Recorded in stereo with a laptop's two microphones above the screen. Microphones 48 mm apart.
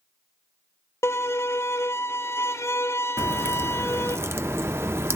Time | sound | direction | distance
1.0 | a violin | 80° left | 0.7 m
3.2 | a crack | 65° right (ahead or behind) | 1.0 m